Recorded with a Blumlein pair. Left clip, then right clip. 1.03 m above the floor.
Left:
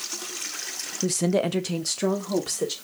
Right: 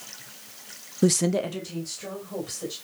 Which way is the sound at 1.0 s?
25° right.